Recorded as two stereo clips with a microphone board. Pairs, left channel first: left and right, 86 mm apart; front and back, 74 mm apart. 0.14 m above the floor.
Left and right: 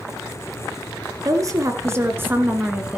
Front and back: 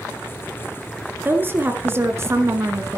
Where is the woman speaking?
125° right, 2.0 m; by 3.0 s 165° right, 1.7 m.